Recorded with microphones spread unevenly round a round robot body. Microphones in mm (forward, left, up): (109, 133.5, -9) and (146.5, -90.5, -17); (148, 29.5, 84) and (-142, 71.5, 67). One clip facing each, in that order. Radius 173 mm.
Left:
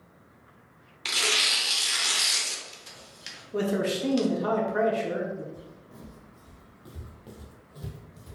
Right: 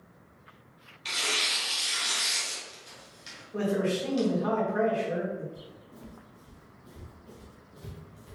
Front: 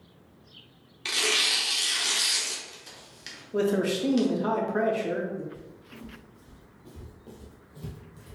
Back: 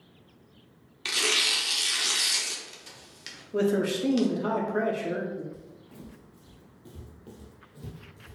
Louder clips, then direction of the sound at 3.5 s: Left 1 dB, even; 85° left.